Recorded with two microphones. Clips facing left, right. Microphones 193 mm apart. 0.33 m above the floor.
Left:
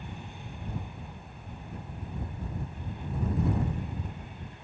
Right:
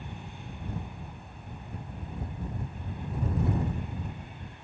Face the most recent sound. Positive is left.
No sound to turn to.